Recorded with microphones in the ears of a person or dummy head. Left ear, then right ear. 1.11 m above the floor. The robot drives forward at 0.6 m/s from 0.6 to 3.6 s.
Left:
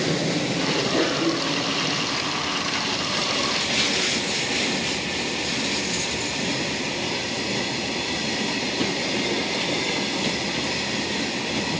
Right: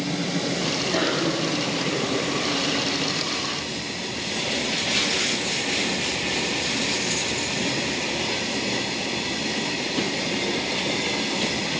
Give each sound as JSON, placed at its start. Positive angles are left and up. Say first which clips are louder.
{"t": 0.9, "sound": "a cough", "louder": "left 1 dB", "side_deg": -40, "distance_m": 4.0}